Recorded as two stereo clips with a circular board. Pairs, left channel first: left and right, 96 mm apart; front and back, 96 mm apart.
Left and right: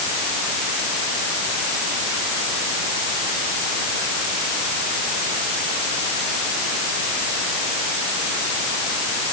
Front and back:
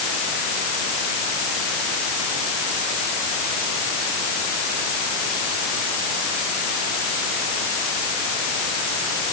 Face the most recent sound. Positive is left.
No sound to turn to.